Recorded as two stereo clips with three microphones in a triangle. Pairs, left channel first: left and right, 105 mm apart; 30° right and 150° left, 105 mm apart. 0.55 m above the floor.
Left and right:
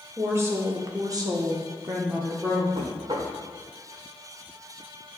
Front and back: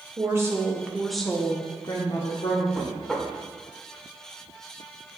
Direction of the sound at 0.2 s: 150° right.